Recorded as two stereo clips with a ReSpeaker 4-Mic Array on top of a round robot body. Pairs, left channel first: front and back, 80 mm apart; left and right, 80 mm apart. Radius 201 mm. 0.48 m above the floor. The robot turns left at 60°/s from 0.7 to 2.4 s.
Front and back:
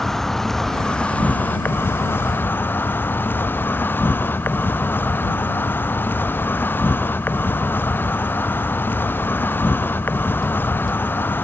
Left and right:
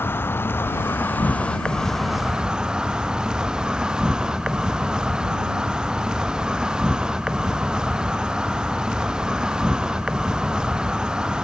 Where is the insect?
80° left; by 11.4 s 20° right.